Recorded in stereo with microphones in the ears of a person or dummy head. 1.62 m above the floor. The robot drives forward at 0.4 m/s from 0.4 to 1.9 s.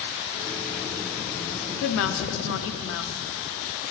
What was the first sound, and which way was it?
A woman speaking, 70° left (ahead or behind).